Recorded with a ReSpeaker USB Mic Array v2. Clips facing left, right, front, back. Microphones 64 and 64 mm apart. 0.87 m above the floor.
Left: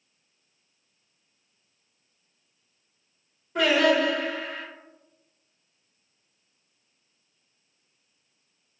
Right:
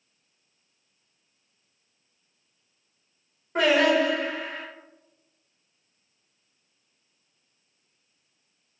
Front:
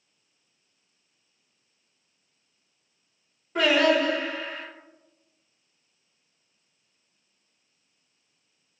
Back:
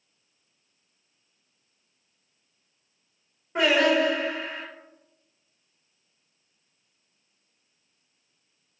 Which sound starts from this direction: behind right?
Singing, at 3.5 s.